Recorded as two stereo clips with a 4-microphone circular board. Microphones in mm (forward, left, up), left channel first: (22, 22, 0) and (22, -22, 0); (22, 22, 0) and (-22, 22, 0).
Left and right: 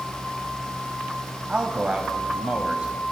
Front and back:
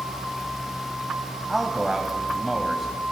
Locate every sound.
1.5 s a man speaking: 100° right, 1.1 m